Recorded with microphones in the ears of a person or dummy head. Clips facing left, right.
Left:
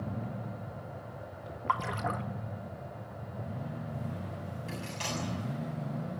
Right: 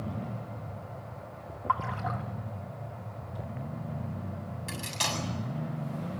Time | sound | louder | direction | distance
1.7 | a splash | even | 45° left (ahead or behind) | 1.3 m
4.7 | cutlery clinking | right 2 dB | 70° right (ahead or behind) | 7 m